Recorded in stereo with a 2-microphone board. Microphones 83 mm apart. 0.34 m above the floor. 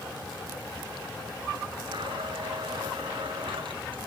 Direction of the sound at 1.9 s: 75° right (ahead or behind).